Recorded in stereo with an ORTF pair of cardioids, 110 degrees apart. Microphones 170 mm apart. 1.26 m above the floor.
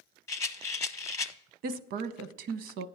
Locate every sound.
0.3 s a rattle: 20° left, 0.8 m
1.6 s a woman speaking: 70° right, 0.8 m